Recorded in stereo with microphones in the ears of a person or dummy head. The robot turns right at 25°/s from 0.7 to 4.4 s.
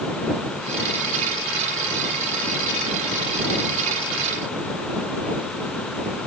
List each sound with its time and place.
Only background noise.